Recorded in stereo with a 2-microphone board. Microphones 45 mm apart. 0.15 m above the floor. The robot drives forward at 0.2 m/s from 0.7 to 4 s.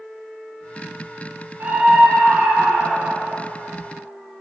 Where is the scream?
40° right (ahead or behind), 2 m.